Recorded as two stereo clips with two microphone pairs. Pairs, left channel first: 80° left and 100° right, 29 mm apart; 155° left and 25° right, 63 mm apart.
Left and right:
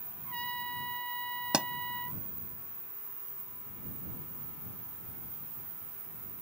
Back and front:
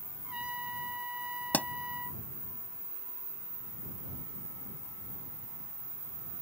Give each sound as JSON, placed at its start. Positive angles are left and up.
{"t": 0.2, "sound": "a trumpet", "azimuth_deg": 45}
{"t": 1.5, "sound": "a pop", "azimuth_deg": -145}